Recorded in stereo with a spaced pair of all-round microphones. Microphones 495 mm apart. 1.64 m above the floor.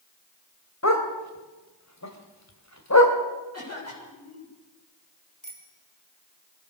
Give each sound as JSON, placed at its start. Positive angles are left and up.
{"t": 0.8, "sound": "a dog barking", "side_deg": 35, "distance_m": 2.5}
{"t": 3.5, "sound": "a cough", "side_deg": 30, "distance_m": 8.0}
{"t": 5.4, "sound": "a bicycle bell", "side_deg": 35, "distance_m": 4.5}